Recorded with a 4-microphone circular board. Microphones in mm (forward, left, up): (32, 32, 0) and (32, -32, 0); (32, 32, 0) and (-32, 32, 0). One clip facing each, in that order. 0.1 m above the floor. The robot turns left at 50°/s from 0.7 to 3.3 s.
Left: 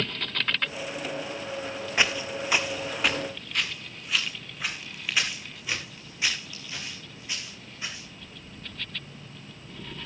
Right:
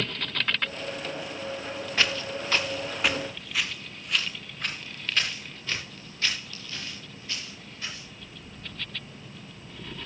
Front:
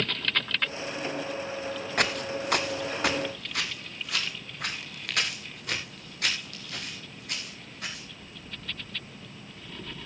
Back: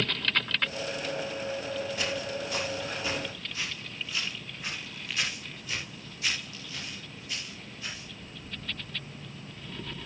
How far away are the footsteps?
About 1.9 m.